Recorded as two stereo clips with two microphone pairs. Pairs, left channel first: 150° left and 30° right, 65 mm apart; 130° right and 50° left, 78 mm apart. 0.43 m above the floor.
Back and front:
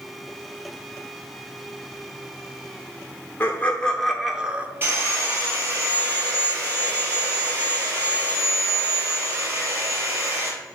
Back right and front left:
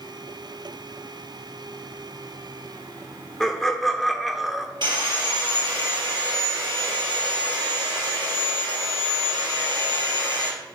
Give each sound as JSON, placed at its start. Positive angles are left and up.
{"t": 3.4, "sound": "laughter", "azimuth_deg": 155, "distance_m": 0.9}
{"t": 4.8, "sound": "sawing", "azimuth_deg": 25, "distance_m": 2.5}